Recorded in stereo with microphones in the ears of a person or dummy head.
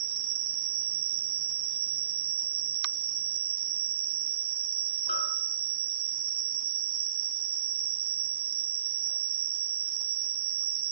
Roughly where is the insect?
Right.